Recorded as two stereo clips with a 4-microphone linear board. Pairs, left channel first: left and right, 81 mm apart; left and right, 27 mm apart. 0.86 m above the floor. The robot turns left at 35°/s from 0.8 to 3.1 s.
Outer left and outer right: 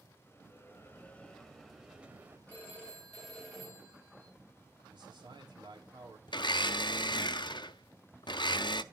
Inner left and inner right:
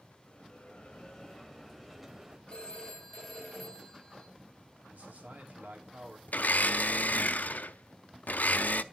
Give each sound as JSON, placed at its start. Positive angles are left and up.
{"t": 0.3, "sound": "a bell", "azimuth_deg": 30, "distance_m": 1.1}
{"t": 2.5, "sound": "a phone ringing", "side_deg": 25, "distance_m": 3.5}
{"t": 4.9, "sound": "a man speaking", "side_deg": -70, "distance_m": 2.5}
{"t": 6.3, "sound": "a blender", "side_deg": 65, "distance_m": 0.5}